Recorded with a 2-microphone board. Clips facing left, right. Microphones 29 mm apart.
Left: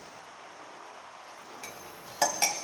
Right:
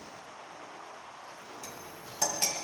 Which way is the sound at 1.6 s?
45° left (ahead or behind).